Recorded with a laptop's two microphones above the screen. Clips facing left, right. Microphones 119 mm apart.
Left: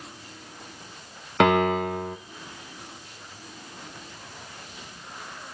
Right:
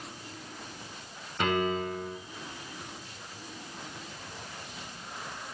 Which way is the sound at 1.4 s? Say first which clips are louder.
Left 8 dB; 80° left.